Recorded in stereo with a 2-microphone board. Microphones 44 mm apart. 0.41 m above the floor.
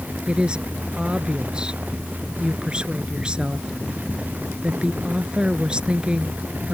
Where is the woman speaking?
20° right (ahead or behind).